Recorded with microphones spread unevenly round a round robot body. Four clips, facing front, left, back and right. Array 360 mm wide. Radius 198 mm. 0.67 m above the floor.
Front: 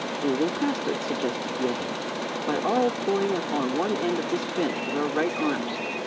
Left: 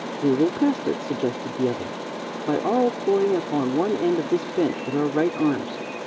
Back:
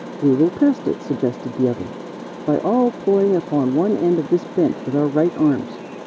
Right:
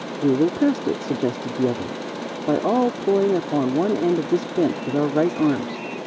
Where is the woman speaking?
175° right.